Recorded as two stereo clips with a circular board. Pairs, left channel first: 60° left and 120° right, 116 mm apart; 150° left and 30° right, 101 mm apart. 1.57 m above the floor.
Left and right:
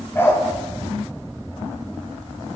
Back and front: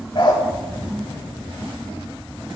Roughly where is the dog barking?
Behind left.